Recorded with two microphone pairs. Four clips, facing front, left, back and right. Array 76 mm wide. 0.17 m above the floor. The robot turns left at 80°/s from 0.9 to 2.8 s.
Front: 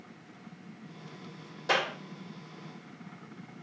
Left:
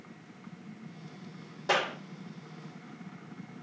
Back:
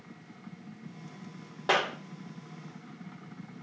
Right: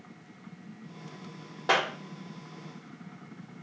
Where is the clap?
135° right, 5.5 m; by 1.9 s 155° right, 5.5 m.